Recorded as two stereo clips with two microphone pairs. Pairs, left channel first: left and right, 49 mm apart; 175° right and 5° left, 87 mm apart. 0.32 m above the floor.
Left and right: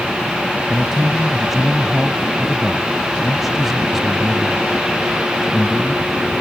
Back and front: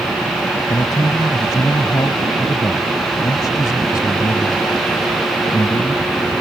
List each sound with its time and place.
0.7 s a man speaking: 175° right